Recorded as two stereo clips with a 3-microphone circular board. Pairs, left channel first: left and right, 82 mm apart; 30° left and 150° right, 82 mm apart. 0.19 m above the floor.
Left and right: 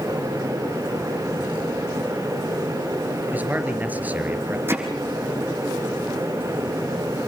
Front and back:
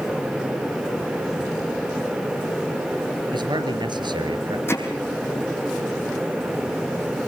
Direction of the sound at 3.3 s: 160° right.